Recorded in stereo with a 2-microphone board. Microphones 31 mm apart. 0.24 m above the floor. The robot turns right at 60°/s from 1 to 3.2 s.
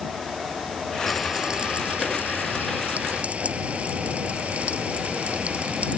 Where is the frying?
Straight behind; by 6.0 s 50° right.